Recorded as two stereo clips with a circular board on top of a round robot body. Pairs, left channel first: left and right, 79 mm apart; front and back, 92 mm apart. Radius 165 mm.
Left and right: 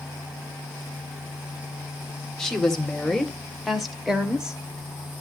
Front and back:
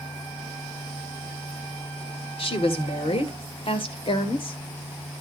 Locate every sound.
2.4 s a woman speaking: 5° left, 3 m; by 4.6 s 10° right, 2 m